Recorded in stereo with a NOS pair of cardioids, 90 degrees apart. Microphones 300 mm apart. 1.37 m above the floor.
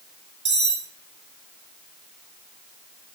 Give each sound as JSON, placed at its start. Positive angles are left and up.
{"t": 0.5, "sound": "cutlery clinking", "azimuth_deg": -35, "distance_m": 3.0}